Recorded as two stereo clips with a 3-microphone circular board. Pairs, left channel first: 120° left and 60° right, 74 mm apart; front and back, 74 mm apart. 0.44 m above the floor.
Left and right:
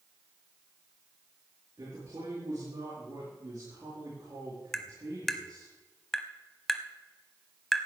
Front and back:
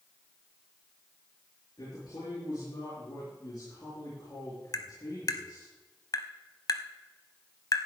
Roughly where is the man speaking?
Ahead right.